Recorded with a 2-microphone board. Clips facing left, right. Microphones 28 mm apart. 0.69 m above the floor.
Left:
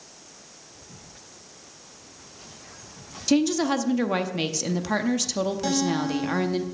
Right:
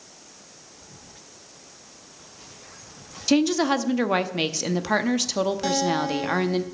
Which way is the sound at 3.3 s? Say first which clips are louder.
Right 1 dB; 15° right (ahead or behind).